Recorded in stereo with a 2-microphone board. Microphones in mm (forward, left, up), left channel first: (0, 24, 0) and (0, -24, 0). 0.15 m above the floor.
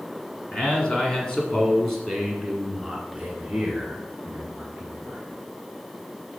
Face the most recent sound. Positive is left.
turn(degrees=-20)  # may be behind; listen again after turning